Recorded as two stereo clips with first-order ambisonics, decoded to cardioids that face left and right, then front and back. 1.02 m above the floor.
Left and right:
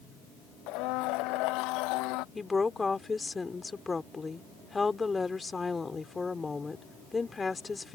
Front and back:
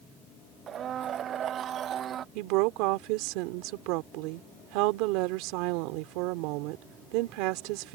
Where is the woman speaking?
170° left.